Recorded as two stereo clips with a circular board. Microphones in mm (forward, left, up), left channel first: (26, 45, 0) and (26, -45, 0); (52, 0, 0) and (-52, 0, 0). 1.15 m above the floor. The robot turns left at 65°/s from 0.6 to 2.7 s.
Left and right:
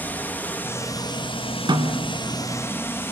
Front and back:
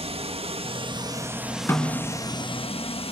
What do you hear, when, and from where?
0.0 s running water: 160° left, 1.4 m; by 3.1 s 25° left, 1.4 m
1.7 s a snare drum: 65° right, 2 m; by 2.1 s 95° right, 2 m